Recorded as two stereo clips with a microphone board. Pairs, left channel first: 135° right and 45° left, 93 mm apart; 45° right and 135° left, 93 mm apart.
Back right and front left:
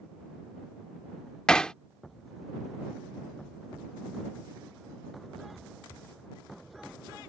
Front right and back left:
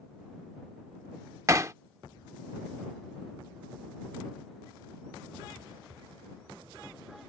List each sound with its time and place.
1.5 s hammering: 150° left